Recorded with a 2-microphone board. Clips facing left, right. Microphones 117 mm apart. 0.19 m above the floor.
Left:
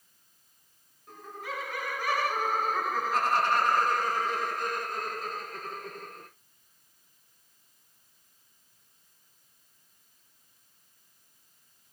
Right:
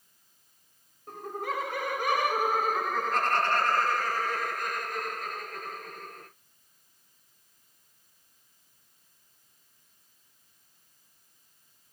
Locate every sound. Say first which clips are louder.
1.1 s laughter: right 6 dB; 45° right (ahead or behind), 1.6 m; by 6.3 s 35° left (ahead or behind), 4 m